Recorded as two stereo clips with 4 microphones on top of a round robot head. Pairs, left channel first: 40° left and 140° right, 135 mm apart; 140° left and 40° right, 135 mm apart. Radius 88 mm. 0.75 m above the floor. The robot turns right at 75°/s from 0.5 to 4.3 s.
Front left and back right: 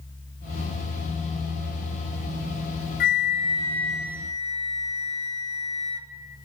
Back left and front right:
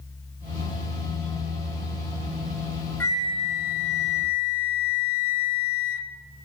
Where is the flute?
65° left, 0.5 m; by 6.1 s 160° left, 0.5 m.